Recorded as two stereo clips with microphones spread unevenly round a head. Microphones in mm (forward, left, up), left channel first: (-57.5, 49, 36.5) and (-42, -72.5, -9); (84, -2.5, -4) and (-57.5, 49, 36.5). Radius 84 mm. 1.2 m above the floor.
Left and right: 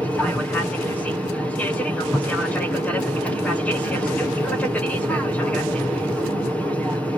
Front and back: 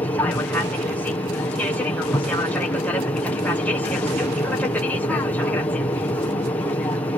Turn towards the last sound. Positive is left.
turn(degrees=-15)